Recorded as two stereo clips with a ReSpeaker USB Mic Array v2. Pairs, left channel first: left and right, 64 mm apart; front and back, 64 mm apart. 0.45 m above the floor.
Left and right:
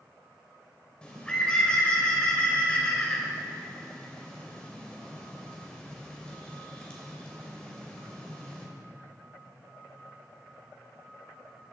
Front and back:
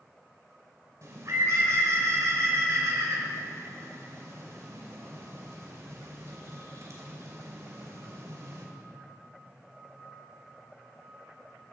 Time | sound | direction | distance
1.0 | a bird | 160° left | 2.5 m